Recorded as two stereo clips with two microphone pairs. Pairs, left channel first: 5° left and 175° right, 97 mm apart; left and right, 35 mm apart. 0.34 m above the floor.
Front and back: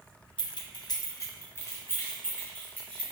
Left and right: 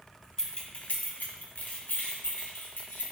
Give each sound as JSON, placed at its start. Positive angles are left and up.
{"t": 0.4, "sound": "keys jangling", "azimuth_deg": 25, "distance_m": 1.6}